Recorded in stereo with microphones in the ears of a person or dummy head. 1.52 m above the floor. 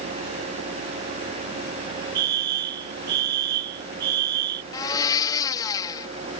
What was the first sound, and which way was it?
A fire alarm, 65° right (ahead or behind).